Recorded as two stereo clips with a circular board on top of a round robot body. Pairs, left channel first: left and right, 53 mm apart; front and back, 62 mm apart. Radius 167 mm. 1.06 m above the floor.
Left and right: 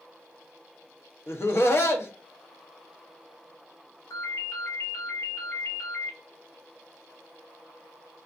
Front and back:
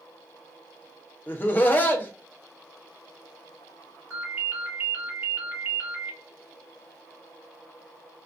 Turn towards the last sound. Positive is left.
turn(degrees=125)